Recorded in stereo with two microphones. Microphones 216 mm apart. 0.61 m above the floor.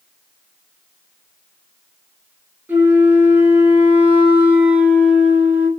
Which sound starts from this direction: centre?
A flute, at 2.7 s.